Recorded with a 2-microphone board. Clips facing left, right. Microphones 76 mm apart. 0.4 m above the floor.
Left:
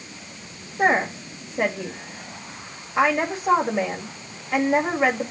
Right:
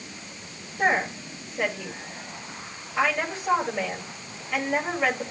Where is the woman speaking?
30° left (ahead or behind), 2 m.